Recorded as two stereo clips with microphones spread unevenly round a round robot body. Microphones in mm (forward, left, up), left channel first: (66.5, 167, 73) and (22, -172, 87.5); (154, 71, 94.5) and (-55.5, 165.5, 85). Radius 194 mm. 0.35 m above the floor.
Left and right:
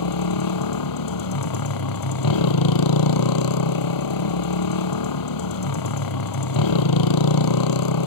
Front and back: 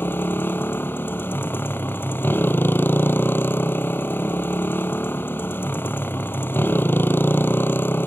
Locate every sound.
0.0 s a motorcycle: 55° left